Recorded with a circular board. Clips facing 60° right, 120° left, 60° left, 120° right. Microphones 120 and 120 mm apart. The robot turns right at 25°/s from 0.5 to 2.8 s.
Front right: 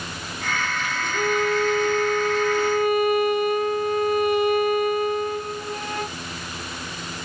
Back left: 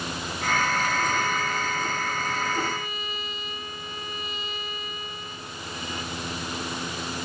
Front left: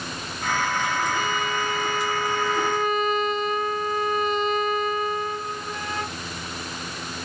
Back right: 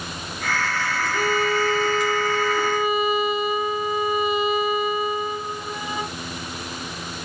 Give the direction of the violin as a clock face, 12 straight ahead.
3 o'clock.